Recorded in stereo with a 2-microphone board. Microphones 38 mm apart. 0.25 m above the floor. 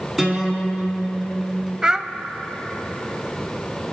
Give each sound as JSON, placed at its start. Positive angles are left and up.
{"t": 0.2, "sound": "a guitar", "side_deg": -5, "distance_m": 2.5}
{"t": 1.8, "sound": "a child speaking", "side_deg": -20, "distance_m": 0.5}